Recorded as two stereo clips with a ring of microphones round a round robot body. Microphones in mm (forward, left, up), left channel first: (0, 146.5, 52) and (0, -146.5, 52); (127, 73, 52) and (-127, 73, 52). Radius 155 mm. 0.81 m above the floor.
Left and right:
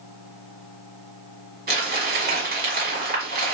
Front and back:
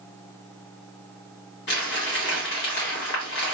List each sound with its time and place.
1.7 s crumpling: 40° right, 1.6 m